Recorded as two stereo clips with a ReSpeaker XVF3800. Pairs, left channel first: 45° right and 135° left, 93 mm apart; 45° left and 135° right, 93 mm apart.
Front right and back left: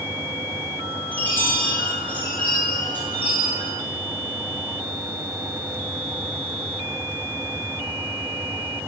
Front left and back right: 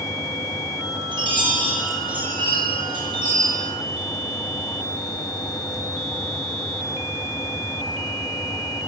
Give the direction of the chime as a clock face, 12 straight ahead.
4 o'clock.